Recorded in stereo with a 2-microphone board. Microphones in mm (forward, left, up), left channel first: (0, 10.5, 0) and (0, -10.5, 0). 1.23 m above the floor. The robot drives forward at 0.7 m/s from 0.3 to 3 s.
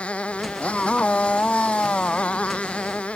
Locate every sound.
0.0 s a motorcycle: 85° left; by 3.2 s 80° left